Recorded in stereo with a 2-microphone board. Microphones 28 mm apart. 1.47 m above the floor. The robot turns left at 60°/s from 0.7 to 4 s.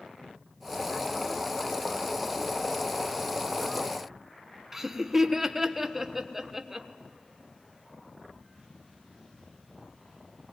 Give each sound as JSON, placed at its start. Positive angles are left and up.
{"t": 4.7, "sound": "laughter", "side_deg": -15, "distance_m": 1.3}